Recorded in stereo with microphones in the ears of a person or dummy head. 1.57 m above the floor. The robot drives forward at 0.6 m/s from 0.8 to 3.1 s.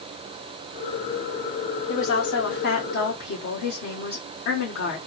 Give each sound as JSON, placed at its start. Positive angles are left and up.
{"t": 1.9, "sound": "a woman speaking", "side_deg": 60, "distance_m": 1.2}